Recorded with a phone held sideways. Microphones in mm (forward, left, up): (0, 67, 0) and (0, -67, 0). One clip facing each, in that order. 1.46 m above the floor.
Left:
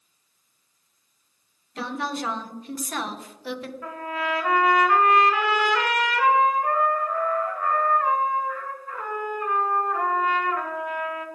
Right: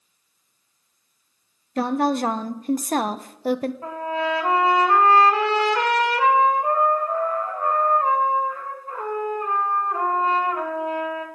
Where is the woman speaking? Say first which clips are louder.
Right 9 dB; 45° right (ahead or behind), 0.6 m.